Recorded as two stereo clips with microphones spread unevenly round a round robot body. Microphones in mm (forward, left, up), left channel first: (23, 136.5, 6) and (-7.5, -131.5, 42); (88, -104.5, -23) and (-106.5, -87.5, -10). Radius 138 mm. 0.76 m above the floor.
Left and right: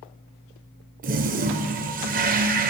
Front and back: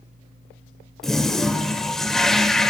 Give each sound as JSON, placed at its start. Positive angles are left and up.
{"t": 1.0, "sound": "a toilet flushing", "azimuth_deg": -95, "distance_m": 0.5}